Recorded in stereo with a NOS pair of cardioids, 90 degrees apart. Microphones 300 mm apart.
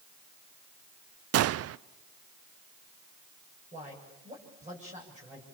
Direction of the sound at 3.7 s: 25° right.